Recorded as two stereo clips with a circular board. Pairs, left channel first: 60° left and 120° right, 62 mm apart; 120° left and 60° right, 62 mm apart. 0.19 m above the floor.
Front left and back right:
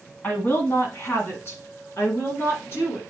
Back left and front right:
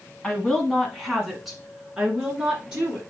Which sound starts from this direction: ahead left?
A woman speaking, at 0.2 s.